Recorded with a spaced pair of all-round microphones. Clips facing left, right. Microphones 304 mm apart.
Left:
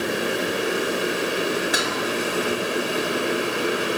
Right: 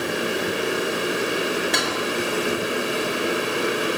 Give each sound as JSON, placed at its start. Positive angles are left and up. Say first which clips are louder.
{"t": 1.7, "sound": "dishes clattering", "louder": "right 1 dB", "side_deg": 5, "distance_m": 4.0}